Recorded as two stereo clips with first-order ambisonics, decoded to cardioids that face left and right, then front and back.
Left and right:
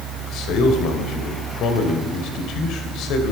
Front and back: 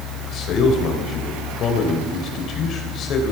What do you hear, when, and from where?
0.3 s a man speaking: 50° left, 2.5 m